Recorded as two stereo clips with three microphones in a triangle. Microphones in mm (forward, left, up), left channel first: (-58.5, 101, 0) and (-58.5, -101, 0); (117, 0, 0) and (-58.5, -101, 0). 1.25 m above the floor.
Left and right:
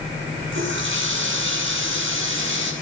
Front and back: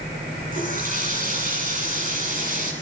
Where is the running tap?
105° right, 8 m.